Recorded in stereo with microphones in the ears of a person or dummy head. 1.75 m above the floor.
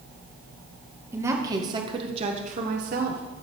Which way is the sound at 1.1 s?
10° right (ahead or behind).